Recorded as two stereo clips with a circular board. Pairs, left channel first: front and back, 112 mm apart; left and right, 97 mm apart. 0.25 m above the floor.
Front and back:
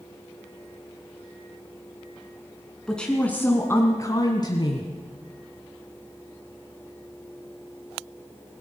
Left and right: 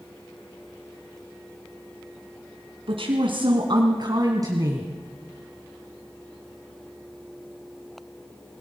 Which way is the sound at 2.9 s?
85° right.